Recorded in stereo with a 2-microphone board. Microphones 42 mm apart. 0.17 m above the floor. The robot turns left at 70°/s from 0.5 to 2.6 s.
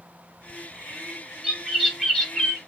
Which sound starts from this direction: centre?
A bird, at 1.4 s.